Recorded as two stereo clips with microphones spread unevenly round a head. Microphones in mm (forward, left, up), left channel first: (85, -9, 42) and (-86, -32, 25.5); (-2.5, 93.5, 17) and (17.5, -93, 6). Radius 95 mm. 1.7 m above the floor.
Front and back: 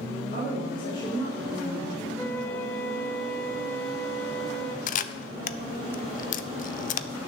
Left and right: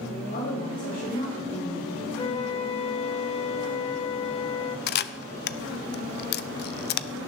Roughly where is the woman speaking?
Left.